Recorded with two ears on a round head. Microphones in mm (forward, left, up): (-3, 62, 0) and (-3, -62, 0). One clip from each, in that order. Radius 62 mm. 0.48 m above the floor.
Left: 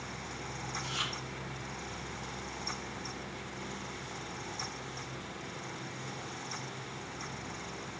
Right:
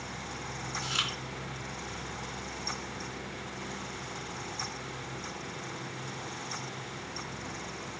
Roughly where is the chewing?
Right.